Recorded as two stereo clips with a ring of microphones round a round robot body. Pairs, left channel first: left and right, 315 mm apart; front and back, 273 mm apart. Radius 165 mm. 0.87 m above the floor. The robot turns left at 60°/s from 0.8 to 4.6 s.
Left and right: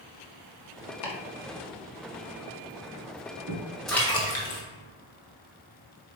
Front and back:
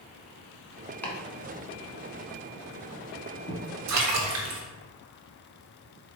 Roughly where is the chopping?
Left.